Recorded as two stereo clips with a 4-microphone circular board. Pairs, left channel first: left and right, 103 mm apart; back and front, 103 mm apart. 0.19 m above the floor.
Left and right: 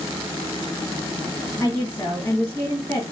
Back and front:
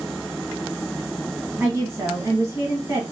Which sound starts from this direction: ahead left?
A woman speaking, at 1.6 s.